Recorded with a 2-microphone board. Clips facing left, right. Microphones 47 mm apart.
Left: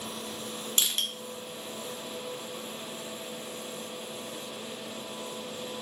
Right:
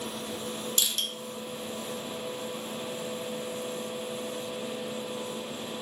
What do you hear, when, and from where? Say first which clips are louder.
0.8 s crushing: left 2 dB; 40° left (ahead or behind), 0.9 m